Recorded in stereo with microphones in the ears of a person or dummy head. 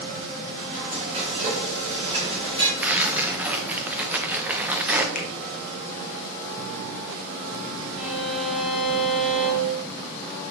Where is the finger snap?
45° left (ahead or behind), 0.8 m.